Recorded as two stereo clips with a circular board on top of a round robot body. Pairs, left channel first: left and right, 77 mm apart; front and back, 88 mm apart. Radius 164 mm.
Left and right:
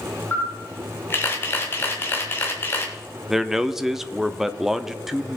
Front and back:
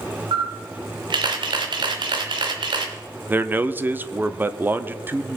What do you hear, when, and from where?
0.3 s a camera shutter: 150° left, 1.3 m
3.3 s a man speaking: 170° right, 0.8 m